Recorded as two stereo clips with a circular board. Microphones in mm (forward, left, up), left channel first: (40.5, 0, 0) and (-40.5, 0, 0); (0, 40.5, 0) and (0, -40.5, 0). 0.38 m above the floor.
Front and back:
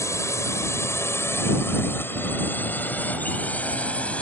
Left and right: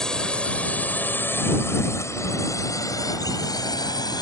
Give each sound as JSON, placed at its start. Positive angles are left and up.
{"t": 0.0, "sound": "a drone", "azimuth_deg": 10}